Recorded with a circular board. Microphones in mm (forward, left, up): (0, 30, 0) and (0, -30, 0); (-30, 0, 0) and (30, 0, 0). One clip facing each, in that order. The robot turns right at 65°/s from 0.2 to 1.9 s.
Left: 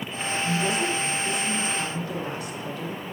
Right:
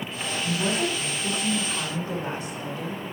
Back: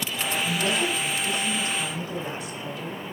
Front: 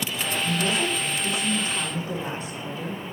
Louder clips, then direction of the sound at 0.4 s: Even, front 1 dB; 130° right.